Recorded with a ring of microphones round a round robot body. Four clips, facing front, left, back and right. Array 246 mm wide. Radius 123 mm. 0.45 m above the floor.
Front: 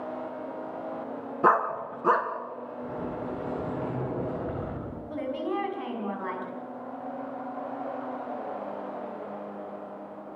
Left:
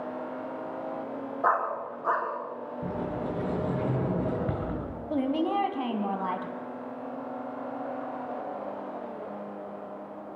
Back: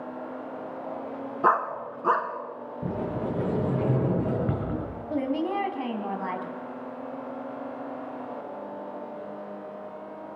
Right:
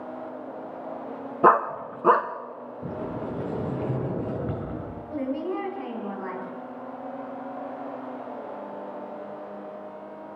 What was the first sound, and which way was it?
A dog barking, 80° right.